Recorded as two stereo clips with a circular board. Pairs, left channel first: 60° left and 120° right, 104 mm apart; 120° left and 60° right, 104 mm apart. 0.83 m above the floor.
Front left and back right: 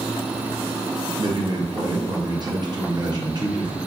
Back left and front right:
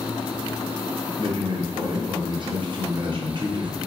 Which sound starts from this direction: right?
A man speaking, at 1.2 s.